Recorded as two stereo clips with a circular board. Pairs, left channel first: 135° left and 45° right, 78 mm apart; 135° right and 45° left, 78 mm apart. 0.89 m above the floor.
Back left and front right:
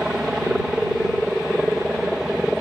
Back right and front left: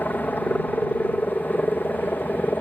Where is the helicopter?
115° right.